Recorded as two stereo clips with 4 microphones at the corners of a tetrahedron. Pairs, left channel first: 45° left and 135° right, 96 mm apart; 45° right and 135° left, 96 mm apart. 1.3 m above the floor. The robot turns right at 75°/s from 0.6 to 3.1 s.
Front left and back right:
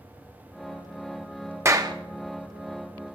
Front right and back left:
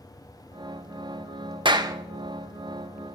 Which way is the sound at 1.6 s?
165° left.